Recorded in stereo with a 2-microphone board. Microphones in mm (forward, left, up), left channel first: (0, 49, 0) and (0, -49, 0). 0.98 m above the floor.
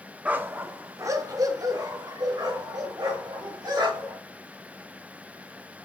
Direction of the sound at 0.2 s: 15° right (ahead or behind).